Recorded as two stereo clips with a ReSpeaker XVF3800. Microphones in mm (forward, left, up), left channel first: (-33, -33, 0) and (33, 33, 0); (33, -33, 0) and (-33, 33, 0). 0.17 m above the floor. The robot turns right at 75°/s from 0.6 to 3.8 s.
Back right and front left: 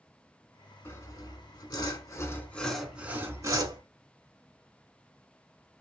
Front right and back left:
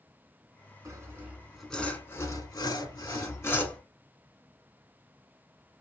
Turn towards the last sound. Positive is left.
turn(degrees=30)